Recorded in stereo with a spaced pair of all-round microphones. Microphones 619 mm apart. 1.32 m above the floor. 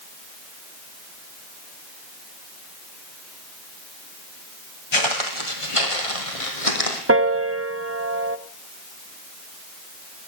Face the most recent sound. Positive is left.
turn(degrees=-25)  # may be behind; listen again after turning